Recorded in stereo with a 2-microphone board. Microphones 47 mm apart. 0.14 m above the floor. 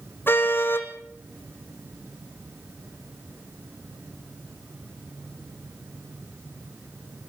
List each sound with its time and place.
0.3 s a car horn: 50° left (ahead or behind), 2.5 m